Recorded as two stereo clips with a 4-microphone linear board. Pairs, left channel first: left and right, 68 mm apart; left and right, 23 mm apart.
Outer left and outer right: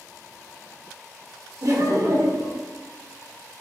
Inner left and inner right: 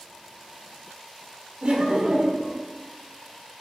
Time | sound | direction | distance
1.6 | laughter | 55° right (ahead or behind) | 0.6 m